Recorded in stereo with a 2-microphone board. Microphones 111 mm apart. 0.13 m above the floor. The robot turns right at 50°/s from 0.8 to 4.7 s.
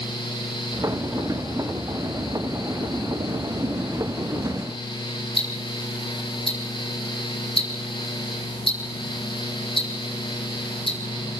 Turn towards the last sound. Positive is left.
turn(degrees=50)  # may be behind; listen again after turning